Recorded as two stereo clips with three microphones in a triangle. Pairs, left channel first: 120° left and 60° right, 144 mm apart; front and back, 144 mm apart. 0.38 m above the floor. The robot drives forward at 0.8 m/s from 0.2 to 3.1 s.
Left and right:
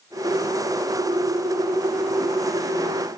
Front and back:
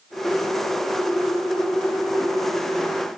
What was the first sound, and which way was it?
Only background noise.